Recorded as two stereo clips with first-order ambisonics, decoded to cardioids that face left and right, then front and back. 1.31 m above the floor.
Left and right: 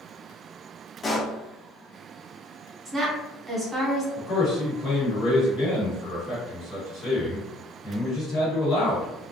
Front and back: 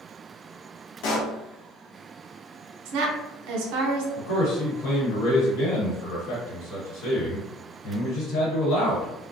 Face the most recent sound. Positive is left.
turn(degrees=30)